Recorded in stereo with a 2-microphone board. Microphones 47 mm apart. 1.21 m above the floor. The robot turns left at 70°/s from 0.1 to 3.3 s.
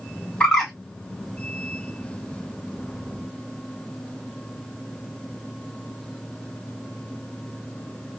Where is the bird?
25° left (ahead or behind), 2.5 m; by 0.7 s centre (ahead or behind), 2.5 m.